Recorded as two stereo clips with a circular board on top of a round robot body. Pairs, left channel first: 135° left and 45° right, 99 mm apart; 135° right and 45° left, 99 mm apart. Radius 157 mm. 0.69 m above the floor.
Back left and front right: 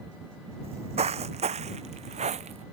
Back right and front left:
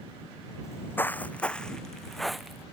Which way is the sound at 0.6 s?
70° right.